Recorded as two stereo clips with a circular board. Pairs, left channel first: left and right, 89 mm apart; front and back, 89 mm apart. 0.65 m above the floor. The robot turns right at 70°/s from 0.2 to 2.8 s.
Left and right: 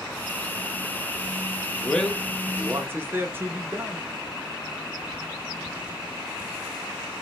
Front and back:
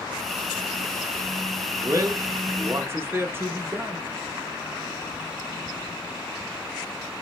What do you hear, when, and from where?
1.8 s a man speaking: 155° left, 0.6 m; by 4.1 s 135° right, 0.6 m